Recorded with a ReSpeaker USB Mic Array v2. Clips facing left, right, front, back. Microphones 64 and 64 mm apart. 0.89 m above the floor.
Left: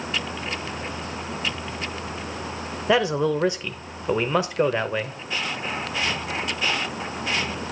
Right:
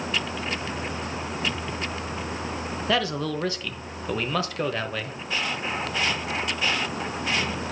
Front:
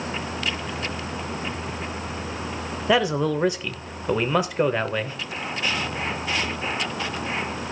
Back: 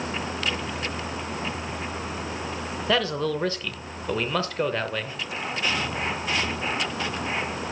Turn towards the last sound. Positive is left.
turn(degrees=50)